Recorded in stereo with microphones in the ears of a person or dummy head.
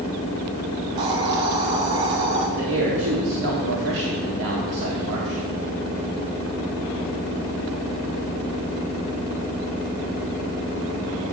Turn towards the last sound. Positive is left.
turn(degrees=-75)  # may be behind; listen again after turning